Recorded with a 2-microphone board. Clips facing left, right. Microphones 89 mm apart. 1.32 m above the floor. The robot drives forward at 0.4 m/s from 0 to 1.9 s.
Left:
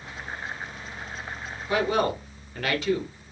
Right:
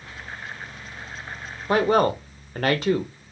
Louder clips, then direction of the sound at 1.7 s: Right 5 dB; 50° right (ahead or behind).